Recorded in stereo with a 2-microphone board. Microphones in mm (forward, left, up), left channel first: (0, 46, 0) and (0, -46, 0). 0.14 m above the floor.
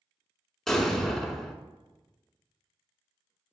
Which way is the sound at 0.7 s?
5° left (ahead or behind).